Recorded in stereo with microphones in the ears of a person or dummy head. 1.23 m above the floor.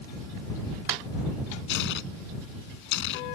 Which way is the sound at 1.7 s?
75° left (ahead or behind).